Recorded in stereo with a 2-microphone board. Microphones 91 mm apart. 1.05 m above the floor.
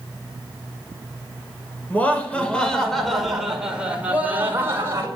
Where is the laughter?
20° left (ahead or behind), 5 m; by 5.1 s 35° right (ahead or behind), 4.5 m.